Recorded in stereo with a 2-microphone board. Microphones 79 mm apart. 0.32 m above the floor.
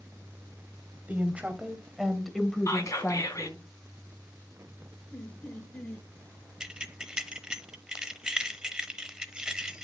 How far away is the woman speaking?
About 2.0 m.